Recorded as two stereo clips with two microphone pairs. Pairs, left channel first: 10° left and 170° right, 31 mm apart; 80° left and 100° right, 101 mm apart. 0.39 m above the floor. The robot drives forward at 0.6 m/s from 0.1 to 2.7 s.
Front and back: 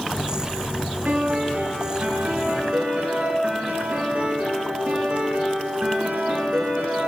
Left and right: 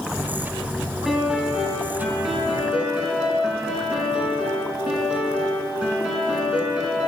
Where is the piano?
175° left, 1.9 m; by 7.1 s straight behind, 3 m.